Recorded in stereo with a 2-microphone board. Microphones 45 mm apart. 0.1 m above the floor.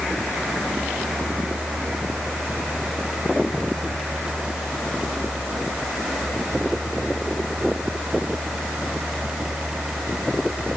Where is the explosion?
I don't hear an explosion.